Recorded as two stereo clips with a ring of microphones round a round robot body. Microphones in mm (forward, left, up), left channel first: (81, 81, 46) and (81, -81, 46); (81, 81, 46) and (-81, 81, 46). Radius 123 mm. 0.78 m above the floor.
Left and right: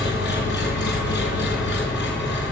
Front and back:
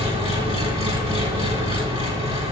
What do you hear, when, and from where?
0.0 s an engine running: 125° left, 2 m